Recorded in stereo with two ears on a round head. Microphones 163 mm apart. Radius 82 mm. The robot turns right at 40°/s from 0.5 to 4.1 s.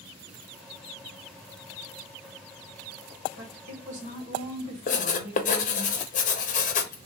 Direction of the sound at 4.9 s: 45° left (ahead or behind).